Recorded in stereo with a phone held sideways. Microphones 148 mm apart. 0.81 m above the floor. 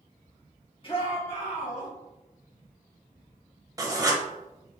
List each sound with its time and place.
0.8 s a shout: 35° left (ahead or behind), 1.5 m; by 1.9 s 60° left (ahead or behind), 2.5 m
3.8 s writing: 25° right (ahead or behind), 0.8 m